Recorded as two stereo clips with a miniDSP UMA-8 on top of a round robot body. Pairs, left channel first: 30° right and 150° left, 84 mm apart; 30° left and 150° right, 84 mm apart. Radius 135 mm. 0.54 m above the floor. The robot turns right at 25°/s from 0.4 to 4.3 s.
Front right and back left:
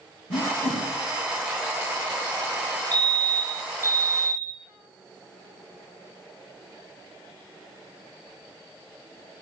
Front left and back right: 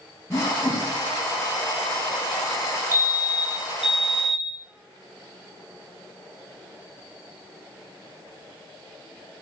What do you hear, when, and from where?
0.3 s a whoosh: 40° right, 5.5 m; by 0.8 s 30° right, 5.5 m
2.9 s a fire alarm: 95° right, 3 m; by 4.6 s 60° right, 3 m